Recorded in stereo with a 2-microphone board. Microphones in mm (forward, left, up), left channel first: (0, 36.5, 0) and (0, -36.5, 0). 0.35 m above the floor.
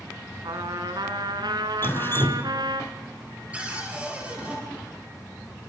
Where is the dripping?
30° left (ahead or behind), 1.1 m.